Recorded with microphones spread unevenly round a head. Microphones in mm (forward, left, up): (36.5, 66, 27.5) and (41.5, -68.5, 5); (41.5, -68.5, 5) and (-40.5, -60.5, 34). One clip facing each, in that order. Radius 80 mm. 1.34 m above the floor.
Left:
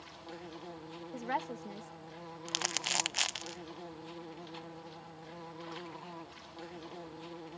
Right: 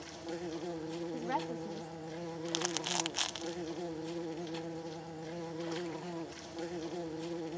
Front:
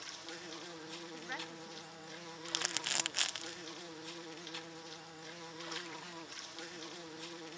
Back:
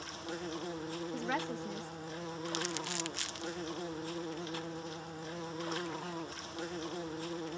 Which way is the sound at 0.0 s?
135° right.